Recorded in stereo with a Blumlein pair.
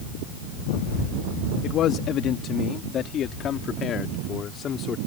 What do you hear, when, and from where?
1.6 s a man speaking: 30° left; by 5.0 s 25° left